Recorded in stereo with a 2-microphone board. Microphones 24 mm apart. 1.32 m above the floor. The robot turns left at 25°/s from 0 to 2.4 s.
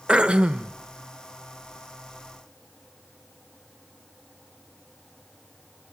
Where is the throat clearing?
45° right (ahead or behind), 1.0 m; by 0.8 s 65° right (ahead or behind), 1.0 m.